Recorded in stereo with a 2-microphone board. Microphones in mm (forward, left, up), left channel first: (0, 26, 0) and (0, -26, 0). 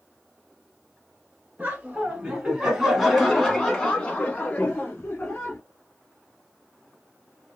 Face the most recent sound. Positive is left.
turn(degrees=50)  # may be behind; listen again after turning